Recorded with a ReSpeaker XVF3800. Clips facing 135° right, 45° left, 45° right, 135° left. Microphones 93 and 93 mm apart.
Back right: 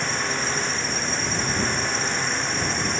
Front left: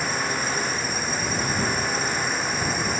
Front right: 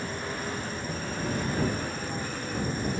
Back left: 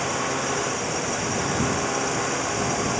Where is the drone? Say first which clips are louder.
Even, back left 8 dB; 130° left.